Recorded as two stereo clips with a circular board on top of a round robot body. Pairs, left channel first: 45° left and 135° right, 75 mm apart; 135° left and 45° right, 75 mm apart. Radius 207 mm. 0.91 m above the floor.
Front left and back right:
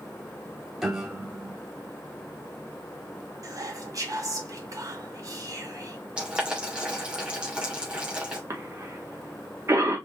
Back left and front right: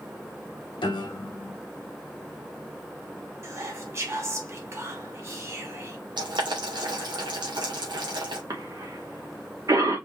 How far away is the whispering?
About 2.5 m.